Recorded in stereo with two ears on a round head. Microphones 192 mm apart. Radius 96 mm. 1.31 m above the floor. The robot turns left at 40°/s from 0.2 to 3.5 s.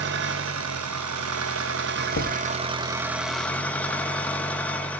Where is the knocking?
55° left (ahead or behind), 1.6 m; by 2.4 s 65° left (ahead or behind), 1.6 m.